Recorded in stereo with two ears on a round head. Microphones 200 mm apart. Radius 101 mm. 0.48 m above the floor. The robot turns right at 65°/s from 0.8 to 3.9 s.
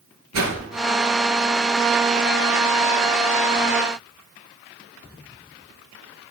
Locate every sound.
0.3 s a whoosh: 70° right (ahead or behind), 4 m